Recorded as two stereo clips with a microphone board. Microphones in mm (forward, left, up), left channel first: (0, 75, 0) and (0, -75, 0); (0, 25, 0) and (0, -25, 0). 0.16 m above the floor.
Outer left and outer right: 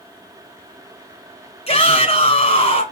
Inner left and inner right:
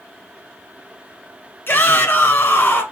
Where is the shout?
45° left (ahead or behind), 1.4 m.